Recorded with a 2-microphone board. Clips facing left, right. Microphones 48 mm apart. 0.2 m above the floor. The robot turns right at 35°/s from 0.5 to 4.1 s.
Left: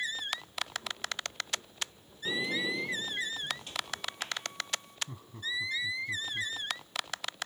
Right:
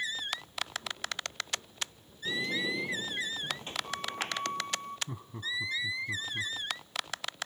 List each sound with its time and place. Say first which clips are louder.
2.2 s a sliding door: even; 165° left, 0.9 m; by 5.0 s 130° right, 0.9 m
5.1 s laughter: right 1 dB; 20° right (ahead or behind), 1.3 m